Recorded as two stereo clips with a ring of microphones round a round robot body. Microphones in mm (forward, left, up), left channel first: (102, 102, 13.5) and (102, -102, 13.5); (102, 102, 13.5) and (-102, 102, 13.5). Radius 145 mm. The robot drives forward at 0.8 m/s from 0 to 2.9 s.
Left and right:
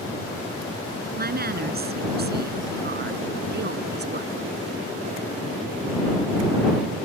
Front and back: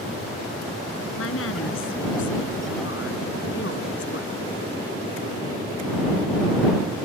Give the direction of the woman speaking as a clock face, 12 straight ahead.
2 o'clock.